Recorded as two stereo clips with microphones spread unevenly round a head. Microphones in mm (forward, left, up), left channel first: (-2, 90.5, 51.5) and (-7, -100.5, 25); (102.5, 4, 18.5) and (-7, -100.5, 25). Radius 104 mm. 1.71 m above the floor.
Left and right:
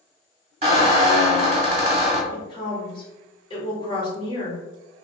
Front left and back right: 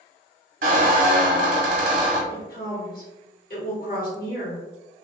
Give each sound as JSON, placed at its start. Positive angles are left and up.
{"t": 0.6, "sound": "a squeak", "azimuth_deg": -155, "distance_m": 0.9}
{"t": 2.3, "sound": "a woman speaking", "azimuth_deg": 25, "distance_m": 1.4}